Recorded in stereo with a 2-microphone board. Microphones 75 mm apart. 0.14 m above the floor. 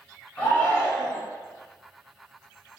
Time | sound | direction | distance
0.4 | a shout | 20° left (ahead or behind) | 1.1 m